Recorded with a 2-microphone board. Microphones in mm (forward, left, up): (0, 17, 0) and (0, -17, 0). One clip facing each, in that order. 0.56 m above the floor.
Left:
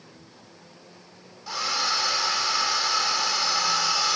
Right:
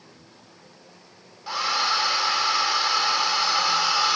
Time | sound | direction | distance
1.5 | a hair dryer | 25° right (ahead or behind) | 0.7 m